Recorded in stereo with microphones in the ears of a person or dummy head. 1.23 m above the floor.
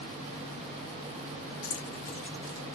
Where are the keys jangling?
35° left (ahead or behind), 0.5 m; by 2.6 s 15° right (ahead or behind), 0.8 m.